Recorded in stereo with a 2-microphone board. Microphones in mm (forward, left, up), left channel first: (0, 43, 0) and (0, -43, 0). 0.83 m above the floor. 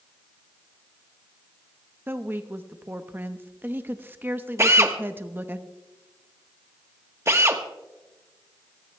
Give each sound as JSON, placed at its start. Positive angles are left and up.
{"t": 2.1, "sound": "a woman speaking", "side_deg": -25, "distance_m": 0.8}
{"t": 4.6, "sound": "a drill", "side_deg": -35, "distance_m": 1.1}